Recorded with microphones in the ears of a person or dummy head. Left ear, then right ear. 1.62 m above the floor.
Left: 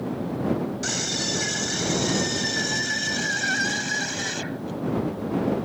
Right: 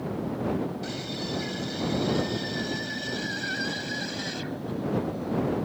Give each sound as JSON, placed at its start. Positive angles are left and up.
{"t": 0.8, "sound": "a scream", "side_deg": 45}